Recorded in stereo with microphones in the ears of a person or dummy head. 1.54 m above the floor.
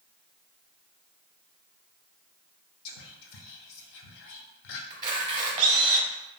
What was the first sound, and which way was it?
Whispering, 65° left (ahead or behind).